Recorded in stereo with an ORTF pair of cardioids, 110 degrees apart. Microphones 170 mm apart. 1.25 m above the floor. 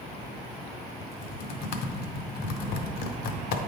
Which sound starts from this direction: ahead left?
Typing on a keyboard, at 1.0 s.